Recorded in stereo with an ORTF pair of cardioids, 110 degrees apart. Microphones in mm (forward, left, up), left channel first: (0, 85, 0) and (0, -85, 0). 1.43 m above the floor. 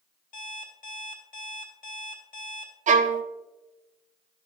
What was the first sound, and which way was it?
An alarm clock, 60° left.